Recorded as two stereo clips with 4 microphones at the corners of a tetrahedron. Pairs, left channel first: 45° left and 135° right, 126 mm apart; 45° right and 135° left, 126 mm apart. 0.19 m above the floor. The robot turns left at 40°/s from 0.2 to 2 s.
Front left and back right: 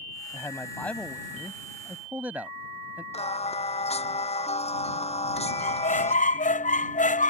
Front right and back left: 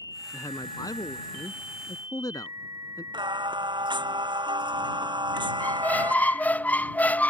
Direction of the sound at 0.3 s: 5° right.